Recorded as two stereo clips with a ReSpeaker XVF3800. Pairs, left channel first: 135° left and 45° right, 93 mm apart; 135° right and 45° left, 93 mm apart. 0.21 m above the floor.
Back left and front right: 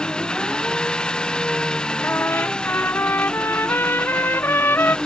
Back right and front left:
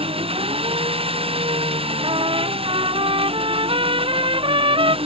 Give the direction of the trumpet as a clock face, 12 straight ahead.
10 o'clock.